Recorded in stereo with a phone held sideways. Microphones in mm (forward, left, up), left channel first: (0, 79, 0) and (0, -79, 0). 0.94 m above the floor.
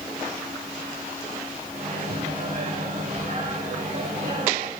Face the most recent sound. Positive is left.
turn(degrees=-50)  # may be behind; listen again after turning